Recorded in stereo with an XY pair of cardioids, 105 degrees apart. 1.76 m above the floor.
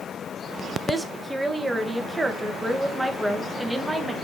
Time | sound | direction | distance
0.9 | a woman speaking | 10° right | 2.0 m